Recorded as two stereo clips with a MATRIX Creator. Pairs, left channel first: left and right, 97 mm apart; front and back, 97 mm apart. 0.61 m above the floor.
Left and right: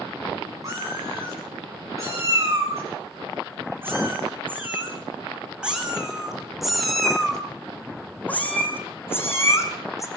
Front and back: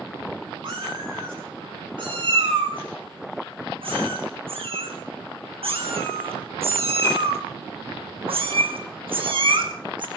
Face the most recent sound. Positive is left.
turn(degrees=145)